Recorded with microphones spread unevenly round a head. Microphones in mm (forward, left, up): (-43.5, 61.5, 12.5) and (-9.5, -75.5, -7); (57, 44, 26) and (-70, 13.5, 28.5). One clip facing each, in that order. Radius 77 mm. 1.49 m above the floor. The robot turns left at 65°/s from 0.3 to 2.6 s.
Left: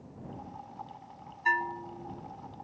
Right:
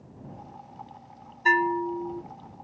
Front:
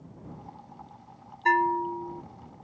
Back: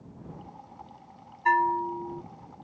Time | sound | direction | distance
1.4 | a bell | 45° right | ?